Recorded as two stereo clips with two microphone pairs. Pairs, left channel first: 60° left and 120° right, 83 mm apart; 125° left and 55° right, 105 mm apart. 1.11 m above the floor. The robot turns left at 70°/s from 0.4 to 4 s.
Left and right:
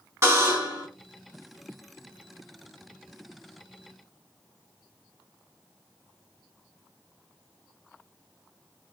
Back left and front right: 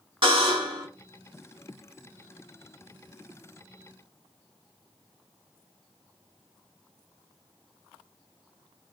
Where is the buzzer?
70° right, 1.6 m; by 0.9 s 100° right, 1.6 m.